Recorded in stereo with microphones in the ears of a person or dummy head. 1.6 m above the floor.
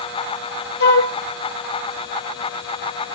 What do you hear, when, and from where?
0.8 s a flute: 65° left (ahead or behind), 1.5 m